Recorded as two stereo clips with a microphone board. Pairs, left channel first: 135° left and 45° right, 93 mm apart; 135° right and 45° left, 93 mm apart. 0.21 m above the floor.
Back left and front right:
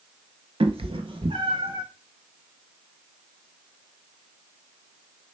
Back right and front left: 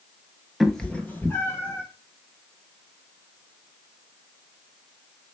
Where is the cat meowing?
40° right, 0.5 m; by 1.8 s 75° right, 1.4 m.